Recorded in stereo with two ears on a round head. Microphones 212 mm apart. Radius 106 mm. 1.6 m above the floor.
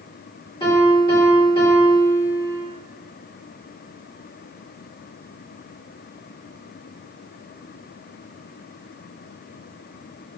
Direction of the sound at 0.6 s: 20° left (ahead or behind).